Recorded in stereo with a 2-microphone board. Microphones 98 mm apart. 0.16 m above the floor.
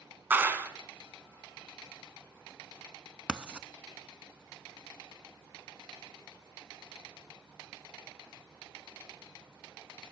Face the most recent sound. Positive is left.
turn(degrees=-10)  # may be behind; listen again after turning